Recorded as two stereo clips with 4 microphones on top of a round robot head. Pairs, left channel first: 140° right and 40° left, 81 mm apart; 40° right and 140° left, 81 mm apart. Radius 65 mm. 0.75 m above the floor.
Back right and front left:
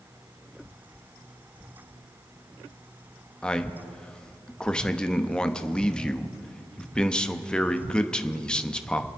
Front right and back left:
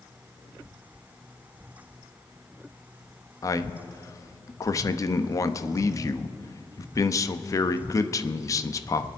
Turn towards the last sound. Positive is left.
turn(degrees=-65)